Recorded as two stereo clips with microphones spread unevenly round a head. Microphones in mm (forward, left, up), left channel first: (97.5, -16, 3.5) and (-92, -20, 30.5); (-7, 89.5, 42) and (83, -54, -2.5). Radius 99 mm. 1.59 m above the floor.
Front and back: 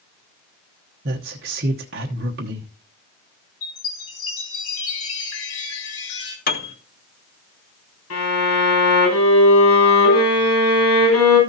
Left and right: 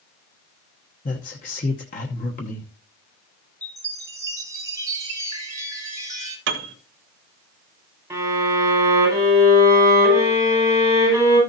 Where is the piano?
40° right, 1.2 m.